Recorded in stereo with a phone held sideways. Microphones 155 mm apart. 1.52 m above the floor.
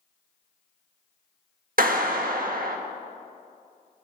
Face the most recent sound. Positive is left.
turn(degrees=-65)  # may be behind; listen again after turning